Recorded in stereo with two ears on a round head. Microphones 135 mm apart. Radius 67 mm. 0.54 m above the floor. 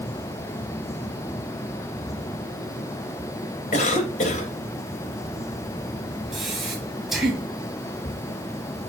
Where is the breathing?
Centre (ahead or behind), 3.5 m.